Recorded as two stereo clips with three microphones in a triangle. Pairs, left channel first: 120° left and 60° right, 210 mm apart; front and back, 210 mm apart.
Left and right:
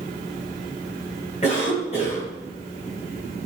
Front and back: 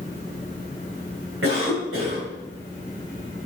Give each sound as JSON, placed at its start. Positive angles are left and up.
{"t": 1.4, "sound": "a cough", "azimuth_deg": 180, "distance_m": 4.0}